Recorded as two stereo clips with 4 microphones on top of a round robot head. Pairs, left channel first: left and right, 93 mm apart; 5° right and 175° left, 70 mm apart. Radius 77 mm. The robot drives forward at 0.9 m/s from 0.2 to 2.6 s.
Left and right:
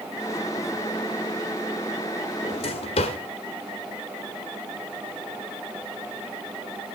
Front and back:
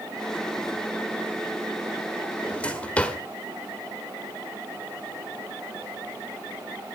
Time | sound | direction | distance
2.4 | a drawer | 60° left | 1.9 m